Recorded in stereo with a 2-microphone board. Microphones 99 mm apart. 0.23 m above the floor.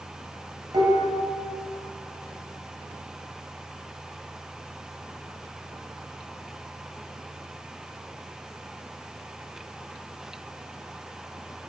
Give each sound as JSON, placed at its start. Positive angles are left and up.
{"t": 0.7, "sound": "dishes clattering", "side_deg": -45, "distance_m": 2.0}